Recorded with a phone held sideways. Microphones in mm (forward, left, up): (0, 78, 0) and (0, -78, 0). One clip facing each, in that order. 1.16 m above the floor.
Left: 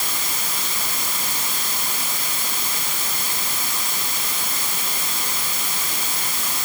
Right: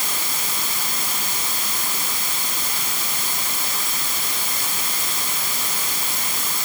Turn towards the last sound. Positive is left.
No sound to turn to.